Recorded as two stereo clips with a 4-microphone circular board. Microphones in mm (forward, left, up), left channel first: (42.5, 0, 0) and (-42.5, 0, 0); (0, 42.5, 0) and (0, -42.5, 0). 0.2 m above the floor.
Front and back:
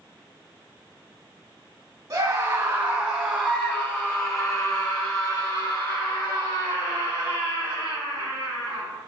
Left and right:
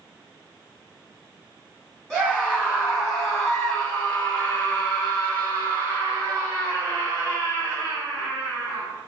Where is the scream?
165° right, 1.9 m; by 8.8 s 25° left, 6 m.